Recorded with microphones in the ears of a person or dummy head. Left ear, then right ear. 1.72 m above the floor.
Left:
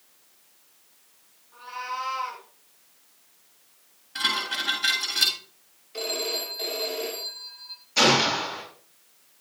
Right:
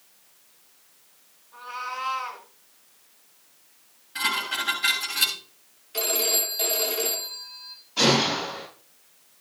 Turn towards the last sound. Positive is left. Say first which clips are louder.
# left 1 dB
turn(degrees=60)  # may be behind; listen again after turning